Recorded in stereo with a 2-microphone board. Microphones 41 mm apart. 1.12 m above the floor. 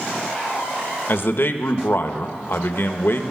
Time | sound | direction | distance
1.1 | a man speaking | 55° left (ahead or behind) | 0.8 m